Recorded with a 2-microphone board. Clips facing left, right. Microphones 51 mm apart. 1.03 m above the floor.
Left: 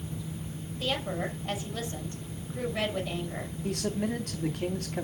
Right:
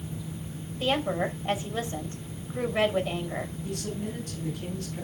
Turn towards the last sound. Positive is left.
turn(degrees=70)  # may be behind; listen again after turning